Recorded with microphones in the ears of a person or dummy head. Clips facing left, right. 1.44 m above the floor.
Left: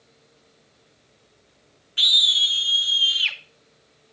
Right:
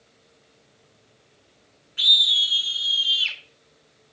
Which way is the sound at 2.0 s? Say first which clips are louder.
Left 1 dB; 45° left (ahead or behind).